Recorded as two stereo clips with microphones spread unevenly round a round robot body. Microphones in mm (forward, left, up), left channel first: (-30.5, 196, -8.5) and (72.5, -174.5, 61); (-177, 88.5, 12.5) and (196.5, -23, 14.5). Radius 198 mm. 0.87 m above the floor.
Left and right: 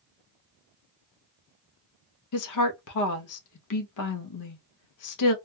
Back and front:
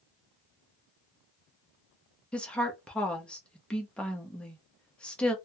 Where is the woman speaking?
75° left, 0.8 m.